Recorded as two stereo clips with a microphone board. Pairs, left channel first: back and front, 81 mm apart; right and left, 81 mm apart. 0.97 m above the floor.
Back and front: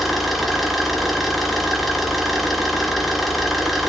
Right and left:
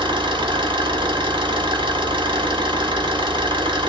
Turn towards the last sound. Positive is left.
turn(degrees=90)